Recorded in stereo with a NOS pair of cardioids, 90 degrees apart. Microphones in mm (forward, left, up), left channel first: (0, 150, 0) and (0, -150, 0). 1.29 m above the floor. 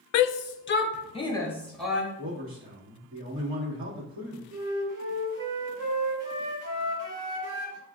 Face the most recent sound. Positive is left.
turn(degrees=-50)